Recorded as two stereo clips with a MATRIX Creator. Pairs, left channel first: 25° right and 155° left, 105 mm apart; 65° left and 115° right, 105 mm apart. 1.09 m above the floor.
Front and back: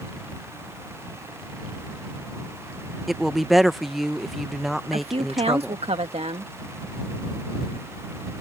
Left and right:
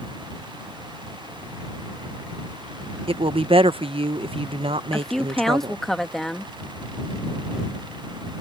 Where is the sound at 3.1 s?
115° right.